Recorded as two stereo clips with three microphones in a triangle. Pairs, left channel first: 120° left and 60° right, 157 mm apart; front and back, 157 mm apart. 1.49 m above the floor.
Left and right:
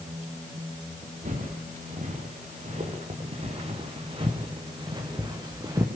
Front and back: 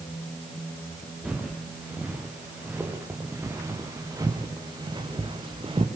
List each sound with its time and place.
1.2 s footsteps: 95° right, 6 m; by 5.9 s 130° right, 4.5 m